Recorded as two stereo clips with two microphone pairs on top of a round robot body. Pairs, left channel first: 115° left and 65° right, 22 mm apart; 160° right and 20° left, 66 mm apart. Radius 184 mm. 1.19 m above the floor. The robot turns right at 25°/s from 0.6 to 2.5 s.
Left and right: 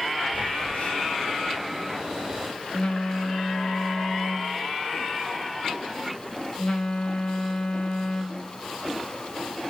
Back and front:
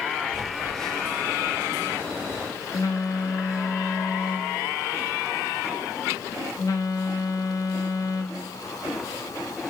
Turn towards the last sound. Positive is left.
turn(degrees=155)